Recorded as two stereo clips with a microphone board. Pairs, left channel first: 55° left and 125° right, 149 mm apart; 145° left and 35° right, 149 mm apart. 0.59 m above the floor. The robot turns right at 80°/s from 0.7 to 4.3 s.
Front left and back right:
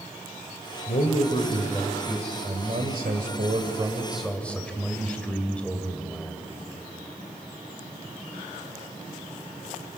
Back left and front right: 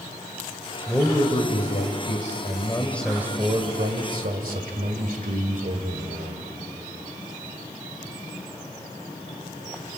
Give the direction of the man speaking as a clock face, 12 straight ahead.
10 o'clock.